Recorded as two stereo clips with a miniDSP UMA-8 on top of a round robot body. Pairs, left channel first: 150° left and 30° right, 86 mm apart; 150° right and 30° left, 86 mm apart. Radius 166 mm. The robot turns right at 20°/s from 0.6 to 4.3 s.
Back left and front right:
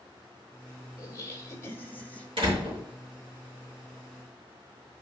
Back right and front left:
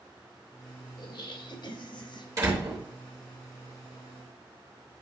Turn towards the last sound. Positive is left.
turn(degrees=15)